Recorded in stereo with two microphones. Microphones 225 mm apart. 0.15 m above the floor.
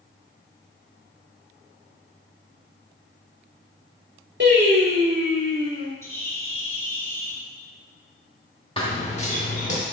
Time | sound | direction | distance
4.4 | singing | 55° right (ahead or behind) | 3 m
6.0 | a bird | 15° left (ahead or behind) | 1.7 m
8.8 | running footsteps | 25° left (ahead or behind) | 2.0 m